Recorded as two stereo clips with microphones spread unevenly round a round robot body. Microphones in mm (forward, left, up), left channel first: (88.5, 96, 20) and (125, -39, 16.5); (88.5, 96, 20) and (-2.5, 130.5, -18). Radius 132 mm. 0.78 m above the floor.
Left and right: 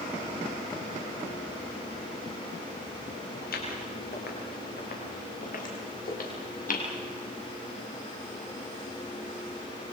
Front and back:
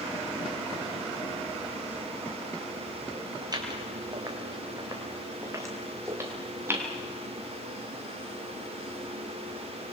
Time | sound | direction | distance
3.4 | footsteps | 110° left | 8.5 m